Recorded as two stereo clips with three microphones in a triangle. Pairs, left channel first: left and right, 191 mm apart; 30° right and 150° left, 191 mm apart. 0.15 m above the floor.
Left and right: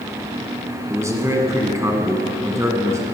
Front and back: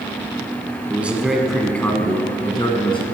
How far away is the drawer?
I don't hear a drawer.